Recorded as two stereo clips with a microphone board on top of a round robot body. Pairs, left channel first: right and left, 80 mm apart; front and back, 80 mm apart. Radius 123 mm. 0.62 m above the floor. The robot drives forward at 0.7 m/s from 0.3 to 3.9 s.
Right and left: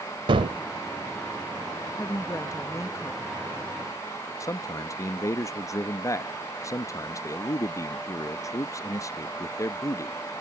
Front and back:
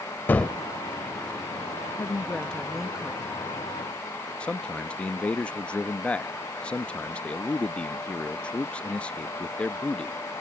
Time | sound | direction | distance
0.3 | a gunshot | 70° left | ?
2.0 | a woman speaking | 50° right | ?
4.4 | a man speaking | 70° right | ?